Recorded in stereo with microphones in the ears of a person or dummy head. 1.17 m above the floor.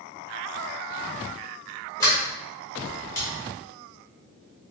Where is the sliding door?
20° left (ahead or behind), 1.4 m.